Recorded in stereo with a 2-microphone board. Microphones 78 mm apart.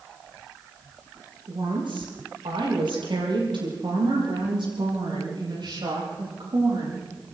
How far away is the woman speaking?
About 7.5 m.